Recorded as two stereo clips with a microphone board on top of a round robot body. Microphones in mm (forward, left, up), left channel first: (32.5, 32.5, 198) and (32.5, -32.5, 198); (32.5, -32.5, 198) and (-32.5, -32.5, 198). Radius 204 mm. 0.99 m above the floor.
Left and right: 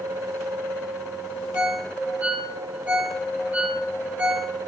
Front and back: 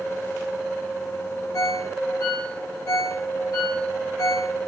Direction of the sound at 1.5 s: 25° right.